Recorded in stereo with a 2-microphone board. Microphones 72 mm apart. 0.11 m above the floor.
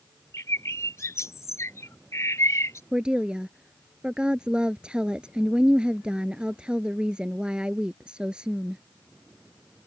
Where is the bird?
45° left (ahead or behind).